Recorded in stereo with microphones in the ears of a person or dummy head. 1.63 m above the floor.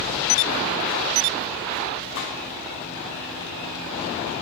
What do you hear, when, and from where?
2.1 s a gunshot: 60° left (ahead or behind), 1.2 m